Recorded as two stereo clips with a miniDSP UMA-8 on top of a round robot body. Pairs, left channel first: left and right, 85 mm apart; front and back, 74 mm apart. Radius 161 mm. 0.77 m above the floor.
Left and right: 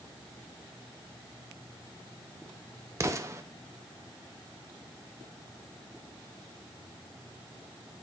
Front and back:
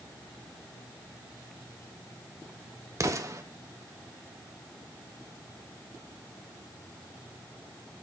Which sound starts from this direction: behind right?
An explosion, at 3.0 s.